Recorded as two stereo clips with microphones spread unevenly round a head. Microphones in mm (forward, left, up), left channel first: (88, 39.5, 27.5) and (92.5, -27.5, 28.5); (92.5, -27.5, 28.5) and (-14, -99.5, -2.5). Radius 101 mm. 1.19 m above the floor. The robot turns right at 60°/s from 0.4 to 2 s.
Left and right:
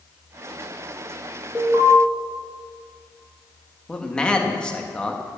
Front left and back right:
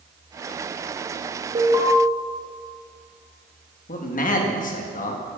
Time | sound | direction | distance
1.6 | an alarm | 145° right | 1.7 m
3.9 | a man speaking | 15° left | 1.8 m